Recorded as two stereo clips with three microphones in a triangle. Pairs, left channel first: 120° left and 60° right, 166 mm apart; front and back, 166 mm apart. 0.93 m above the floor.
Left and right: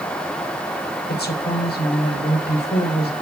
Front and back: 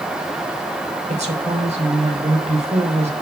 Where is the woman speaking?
130° left, 5 m.